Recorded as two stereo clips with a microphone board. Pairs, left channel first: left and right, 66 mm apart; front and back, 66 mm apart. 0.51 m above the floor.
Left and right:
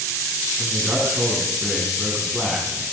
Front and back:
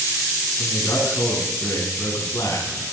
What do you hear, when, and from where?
0.6 s a man speaking: 25° right, 5 m